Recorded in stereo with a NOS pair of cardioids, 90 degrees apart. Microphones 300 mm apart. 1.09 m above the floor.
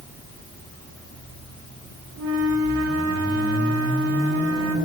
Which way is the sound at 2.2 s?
60° right.